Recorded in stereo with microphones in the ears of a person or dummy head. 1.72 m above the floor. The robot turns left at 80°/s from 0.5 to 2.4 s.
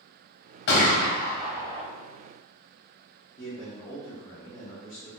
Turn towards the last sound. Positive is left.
turn(degrees=20)  # may be behind; listen again after turning